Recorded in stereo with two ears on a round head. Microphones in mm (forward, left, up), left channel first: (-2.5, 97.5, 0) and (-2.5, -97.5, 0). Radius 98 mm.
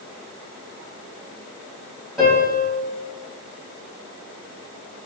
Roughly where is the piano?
Centre.